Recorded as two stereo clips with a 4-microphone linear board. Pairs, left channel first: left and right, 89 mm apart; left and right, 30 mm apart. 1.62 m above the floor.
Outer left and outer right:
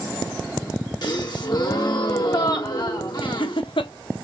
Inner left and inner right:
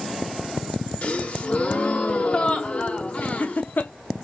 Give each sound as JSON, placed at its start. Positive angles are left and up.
{"t": 1.0, "sound": "a gasp", "side_deg": 55, "distance_m": 1.4}
{"t": 3.2, "sound": "laughter", "side_deg": 70, "distance_m": 0.7}